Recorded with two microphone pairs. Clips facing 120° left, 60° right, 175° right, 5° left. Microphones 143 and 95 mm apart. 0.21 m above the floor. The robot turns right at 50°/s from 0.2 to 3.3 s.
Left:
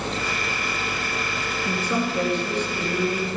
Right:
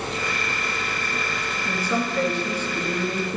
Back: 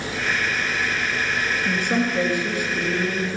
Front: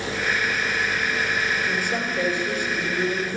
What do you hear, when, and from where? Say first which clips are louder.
1.6 s a woman speaking: even, back 3 dB; 175° left, 3 m; by 3.4 s 100° right, 3 m